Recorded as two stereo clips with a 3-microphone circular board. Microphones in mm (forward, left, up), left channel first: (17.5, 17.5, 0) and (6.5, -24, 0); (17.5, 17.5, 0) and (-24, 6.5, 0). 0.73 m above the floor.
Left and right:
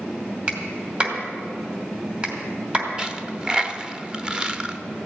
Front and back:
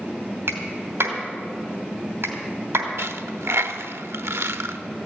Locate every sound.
0.5 s a clap: 160° right, 2.5 m
3.0 s a dropped coin: 175° right, 0.7 m